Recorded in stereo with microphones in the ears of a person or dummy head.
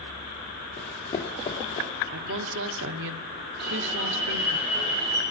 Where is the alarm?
80° right, 5.5 m.